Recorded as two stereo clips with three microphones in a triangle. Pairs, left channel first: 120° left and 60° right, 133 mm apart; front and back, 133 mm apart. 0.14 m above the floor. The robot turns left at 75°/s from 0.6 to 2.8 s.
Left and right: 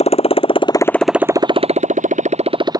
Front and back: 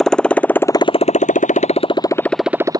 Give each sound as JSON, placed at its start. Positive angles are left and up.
{"t": 0.0, "sound": "a motorcycle", "azimuth_deg": 90}